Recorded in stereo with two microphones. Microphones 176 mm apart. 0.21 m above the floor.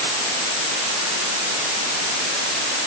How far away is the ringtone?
No ringtone in this recording.